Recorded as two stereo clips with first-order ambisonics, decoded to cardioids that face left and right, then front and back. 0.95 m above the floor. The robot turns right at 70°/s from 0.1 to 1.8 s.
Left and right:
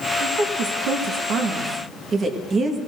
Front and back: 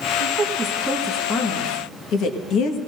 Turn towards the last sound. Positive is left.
turn(degrees=-30)